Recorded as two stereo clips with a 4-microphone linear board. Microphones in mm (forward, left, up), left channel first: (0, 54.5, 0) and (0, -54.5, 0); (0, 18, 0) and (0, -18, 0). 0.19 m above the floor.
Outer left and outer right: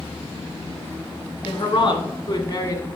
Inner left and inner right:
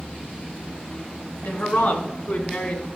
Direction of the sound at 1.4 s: 55° left (ahead or behind).